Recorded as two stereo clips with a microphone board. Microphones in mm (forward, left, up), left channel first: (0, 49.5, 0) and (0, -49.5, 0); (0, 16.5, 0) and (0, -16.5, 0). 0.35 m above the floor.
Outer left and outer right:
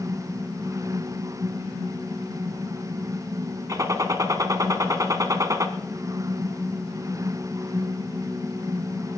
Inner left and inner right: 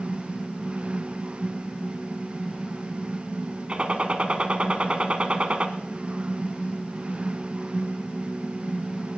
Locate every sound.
3.7 s a gunshot: 40° right (ahead or behind), 1.5 m